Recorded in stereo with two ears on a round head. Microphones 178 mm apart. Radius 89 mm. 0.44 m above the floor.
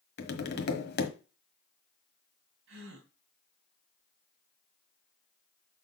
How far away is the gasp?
About 3.5 m.